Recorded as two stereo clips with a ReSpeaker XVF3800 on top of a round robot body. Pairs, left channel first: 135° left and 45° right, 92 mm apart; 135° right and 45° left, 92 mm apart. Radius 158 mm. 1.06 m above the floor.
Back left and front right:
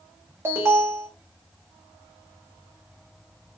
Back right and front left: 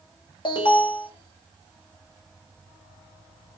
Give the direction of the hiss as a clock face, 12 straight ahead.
I don't hear a hiss.